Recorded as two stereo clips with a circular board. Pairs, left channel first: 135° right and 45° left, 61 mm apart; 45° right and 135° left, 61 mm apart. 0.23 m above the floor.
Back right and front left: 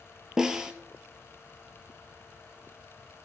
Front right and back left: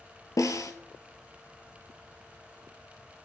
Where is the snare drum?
35° right, 0.8 m.